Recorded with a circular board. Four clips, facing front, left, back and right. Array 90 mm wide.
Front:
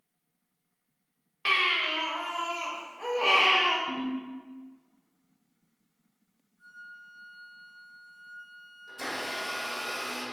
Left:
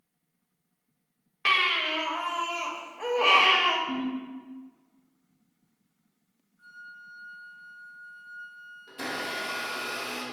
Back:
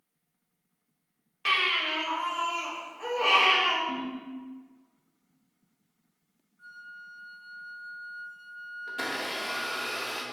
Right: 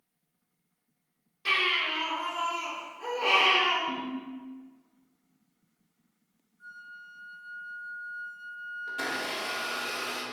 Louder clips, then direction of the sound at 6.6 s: Even, back 2 dB; 135° left.